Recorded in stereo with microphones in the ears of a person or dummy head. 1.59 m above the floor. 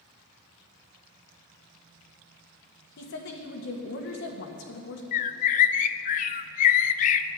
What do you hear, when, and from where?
3.0 s a woman speaking: 55° left (ahead or behind), 1.6 m
5.1 s a bird: 50° left (ahead or behind), 0.5 m